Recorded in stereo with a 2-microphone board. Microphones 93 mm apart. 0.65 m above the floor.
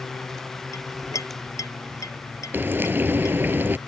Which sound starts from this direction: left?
A clink, at 0.7 s.